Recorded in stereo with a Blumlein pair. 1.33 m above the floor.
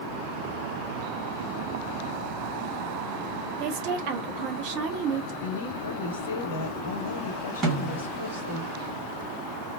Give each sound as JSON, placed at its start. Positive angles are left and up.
{"t": 3.6, "sound": "a woman speaking", "azimuth_deg": -40, "distance_m": 0.8}
{"t": 5.4, "sound": "a woman speaking", "azimuth_deg": 65, "distance_m": 1.2}
{"t": 7.6, "sound": "a snare drum", "azimuth_deg": -20, "distance_m": 1.5}